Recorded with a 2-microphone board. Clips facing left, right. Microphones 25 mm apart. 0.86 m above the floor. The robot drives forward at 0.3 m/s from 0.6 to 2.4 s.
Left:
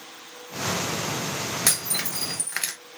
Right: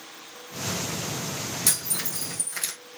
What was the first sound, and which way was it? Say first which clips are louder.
Breaking glass: left 2 dB; 50° left (ahead or behind).